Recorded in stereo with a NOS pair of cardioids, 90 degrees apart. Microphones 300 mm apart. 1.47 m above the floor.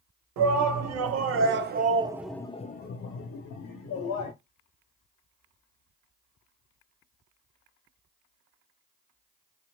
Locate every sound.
0.4 s a shout: 65° right, 1.1 m; by 4.3 s 70° left, 1.2 m